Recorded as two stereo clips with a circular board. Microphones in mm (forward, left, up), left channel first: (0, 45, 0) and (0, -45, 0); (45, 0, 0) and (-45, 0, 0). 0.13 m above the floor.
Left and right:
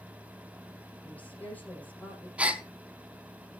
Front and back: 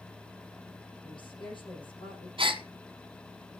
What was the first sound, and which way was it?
A woman speaking, 20° left.